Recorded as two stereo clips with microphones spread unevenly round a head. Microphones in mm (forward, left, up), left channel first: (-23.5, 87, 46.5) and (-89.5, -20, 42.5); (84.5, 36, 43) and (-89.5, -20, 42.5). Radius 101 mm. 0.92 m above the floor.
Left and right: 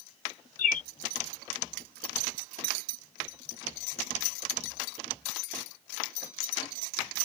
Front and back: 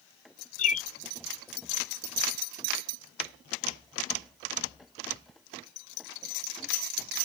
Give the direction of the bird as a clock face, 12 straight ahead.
10 o'clock.